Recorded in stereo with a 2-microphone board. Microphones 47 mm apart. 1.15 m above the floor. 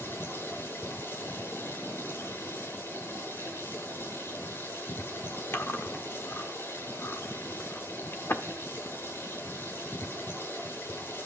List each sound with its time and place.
0.0 s running water: 60° left (ahead or behind), 8 m
5.5 s chewing: 55° left (ahead or behind), 1.2 m